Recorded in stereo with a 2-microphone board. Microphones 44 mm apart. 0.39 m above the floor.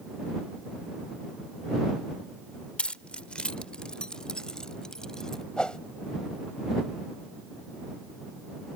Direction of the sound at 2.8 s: 30° left (ahead or behind).